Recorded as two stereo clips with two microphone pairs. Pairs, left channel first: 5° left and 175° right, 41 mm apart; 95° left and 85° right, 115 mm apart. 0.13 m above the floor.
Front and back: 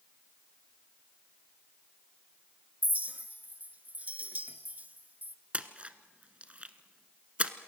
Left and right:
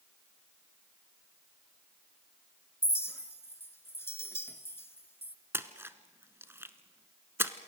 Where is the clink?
155° left, 1.4 m.